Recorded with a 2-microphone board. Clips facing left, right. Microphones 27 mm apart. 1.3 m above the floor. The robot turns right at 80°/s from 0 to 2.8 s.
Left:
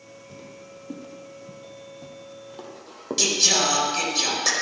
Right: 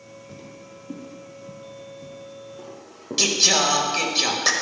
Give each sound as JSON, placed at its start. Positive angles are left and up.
{"t": 0.3, "sound": "footsteps", "side_deg": -10, "distance_m": 2.5}
{"t": 3.2, "sound": "singing", "side_deg": -20, "distance_m": 1.8}